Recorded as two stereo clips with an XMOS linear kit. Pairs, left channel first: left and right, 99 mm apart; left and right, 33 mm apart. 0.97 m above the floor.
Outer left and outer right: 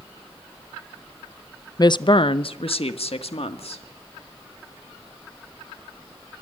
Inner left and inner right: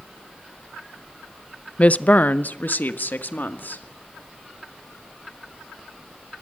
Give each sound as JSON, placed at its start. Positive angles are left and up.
{"t": 1.8, "sound": "a woman speaking", "side_deg": 40, "distance_m": 0.6}